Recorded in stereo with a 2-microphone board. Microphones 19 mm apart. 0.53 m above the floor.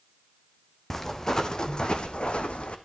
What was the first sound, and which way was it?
Footsteps, 15° left (ahead or behind).